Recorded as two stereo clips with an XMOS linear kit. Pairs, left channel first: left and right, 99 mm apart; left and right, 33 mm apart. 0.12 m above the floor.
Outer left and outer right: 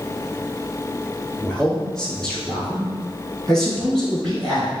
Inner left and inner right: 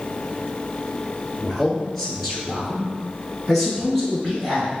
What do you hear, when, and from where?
1.4 s a man speaking: 5° left (ahead or behind), 1.5 m